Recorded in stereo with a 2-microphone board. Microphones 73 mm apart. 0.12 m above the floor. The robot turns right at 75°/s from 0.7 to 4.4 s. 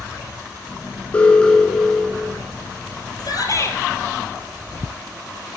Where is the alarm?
20° left (ahead or behind), 1.9 m; by 2.4 s 10° right (ahead or behind), 1.9 m.